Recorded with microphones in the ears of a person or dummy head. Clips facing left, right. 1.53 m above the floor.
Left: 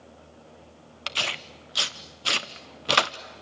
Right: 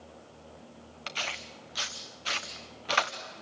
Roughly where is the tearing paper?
Left.